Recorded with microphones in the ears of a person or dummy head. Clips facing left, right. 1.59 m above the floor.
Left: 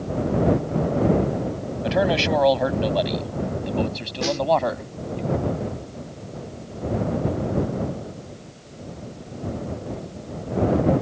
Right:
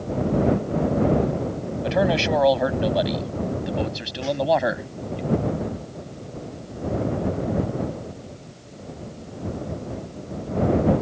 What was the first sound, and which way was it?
A man speaking, 5° left (ahead or behind).